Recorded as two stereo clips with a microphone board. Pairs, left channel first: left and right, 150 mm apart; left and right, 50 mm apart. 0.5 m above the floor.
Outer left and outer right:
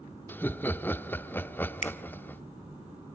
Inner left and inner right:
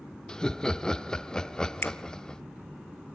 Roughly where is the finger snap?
Left.